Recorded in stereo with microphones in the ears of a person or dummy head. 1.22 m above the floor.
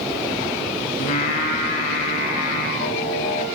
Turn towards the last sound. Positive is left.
turn(degrees=50)  # may be behind; listen again after turning